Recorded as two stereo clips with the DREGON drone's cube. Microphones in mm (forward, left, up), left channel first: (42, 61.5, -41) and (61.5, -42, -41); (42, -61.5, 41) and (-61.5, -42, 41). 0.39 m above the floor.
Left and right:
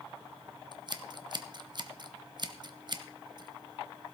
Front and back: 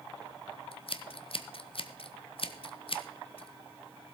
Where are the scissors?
40° right, 0.9 m.